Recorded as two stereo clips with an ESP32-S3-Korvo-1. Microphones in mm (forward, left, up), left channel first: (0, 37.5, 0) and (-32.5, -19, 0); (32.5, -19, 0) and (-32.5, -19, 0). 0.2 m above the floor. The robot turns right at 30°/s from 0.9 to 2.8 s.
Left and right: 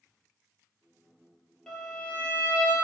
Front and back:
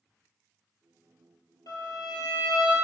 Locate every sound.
1.7 s a violin: 25° right, 0.9 m; by 2.7 s 10° left, 0.9 m